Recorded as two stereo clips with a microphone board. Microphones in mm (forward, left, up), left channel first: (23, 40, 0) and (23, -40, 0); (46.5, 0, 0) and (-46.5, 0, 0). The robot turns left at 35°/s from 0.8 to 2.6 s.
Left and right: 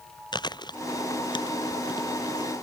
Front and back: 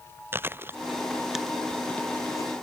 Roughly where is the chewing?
Behind left.